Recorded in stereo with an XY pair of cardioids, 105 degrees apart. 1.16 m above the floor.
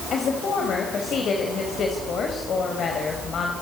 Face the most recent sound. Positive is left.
turn(degrees=55)